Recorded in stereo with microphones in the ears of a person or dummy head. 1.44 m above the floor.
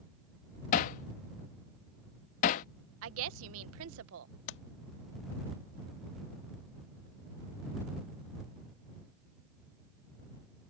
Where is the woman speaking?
85° right.